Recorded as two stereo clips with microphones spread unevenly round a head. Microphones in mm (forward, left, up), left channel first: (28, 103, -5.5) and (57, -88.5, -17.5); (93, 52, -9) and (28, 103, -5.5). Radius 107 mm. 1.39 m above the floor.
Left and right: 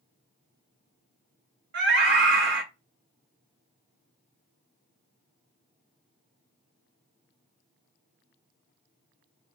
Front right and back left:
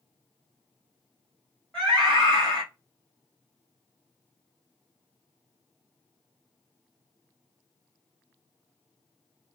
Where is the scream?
130° right, 0.5 m.